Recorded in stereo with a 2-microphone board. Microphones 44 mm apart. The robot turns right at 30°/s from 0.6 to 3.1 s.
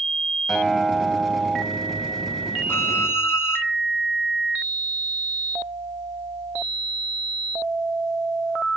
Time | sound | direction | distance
0.5 | a guitar | 170° left | 6 m
2.7 | a violin | 75° left (ahead or behind) | 2.5 m